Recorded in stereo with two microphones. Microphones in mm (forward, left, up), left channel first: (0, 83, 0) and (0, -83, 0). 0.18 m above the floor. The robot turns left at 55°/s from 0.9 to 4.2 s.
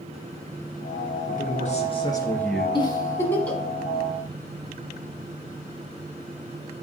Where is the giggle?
30° left (ahead or behind), 1.3 m; by 3.6 s 5° left (ahead or behind), 1.3 m.